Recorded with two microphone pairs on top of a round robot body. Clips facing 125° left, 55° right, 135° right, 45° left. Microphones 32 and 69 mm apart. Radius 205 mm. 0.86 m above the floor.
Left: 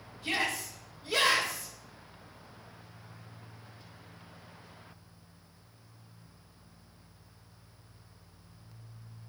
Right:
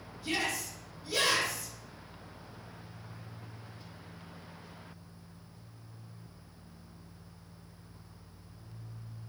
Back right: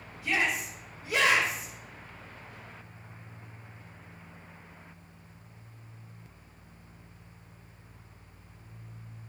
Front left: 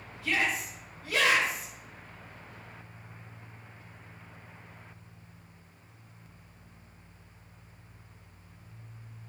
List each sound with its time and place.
0.2 s a shout: 155° left, 4 m